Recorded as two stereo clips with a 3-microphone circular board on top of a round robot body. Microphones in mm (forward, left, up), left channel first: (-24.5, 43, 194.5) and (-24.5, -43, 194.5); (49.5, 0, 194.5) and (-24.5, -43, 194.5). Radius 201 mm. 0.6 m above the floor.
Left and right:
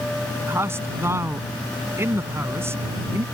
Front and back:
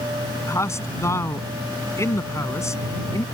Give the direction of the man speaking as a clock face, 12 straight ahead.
1 o'clock.